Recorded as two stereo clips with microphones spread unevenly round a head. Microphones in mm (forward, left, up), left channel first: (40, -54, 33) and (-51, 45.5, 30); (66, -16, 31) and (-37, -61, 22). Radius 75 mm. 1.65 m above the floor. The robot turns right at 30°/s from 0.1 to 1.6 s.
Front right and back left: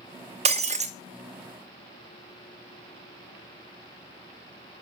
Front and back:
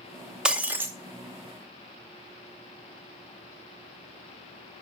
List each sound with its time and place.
0.5 s breaking glass: 115° left, 0.9 m; by 0.9 s 130° left, 0.9 m